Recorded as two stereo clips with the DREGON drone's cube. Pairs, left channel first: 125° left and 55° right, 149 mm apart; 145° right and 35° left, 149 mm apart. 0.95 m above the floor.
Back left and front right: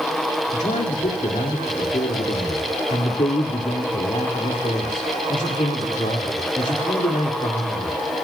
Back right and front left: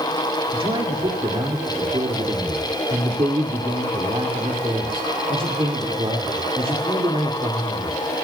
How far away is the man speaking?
About 2.5 m.